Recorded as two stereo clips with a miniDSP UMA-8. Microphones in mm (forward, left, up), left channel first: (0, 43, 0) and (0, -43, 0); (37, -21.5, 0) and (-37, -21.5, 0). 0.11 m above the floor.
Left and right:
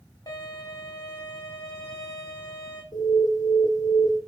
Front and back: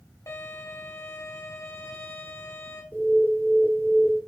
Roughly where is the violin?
Ahead left.